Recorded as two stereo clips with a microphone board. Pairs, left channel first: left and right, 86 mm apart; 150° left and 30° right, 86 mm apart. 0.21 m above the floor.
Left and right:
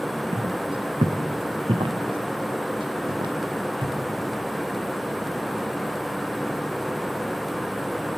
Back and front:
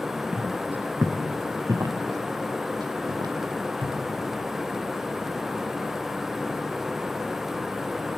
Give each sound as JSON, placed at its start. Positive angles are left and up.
{"t": 0.3, "sound": "footsteps", "azimuth_deg": -110, "distance_m": 2.0}